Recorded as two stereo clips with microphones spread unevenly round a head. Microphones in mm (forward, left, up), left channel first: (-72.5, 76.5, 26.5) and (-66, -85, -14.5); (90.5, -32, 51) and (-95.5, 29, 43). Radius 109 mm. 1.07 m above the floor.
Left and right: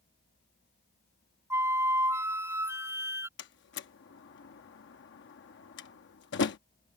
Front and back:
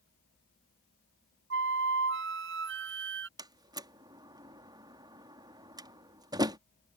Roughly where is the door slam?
Left.